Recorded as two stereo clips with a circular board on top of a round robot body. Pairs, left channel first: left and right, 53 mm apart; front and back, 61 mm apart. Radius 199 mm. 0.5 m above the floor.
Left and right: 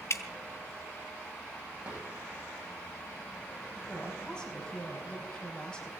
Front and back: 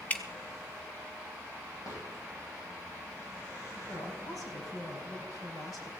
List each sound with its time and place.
0.1 s dripping: 65° left, 1.4 m
1.8 s a drawer: 25° right, 8.5 m
3.8 s a woman speaking: 15° left, 4.5 m